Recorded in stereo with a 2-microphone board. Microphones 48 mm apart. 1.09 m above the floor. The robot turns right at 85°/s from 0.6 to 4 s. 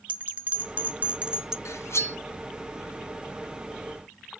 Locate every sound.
0.1 s a bell: 100° right, 0.9 m; by 1.6 s 20° right, 0.9 m
1.6 s cutlery clinking: 75° left (ahead or behind), 0.6 m; by 2.2 s 50° left (ahead or behind), 0.6 m